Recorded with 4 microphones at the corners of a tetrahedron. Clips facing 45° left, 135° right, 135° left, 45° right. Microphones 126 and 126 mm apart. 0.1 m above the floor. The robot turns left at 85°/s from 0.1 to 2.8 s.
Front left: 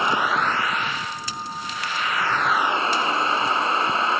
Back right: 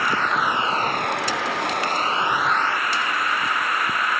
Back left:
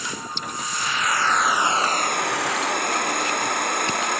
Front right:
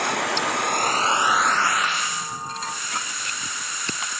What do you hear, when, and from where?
0.0 s an insect: 25° right; by 4.2 s 110° left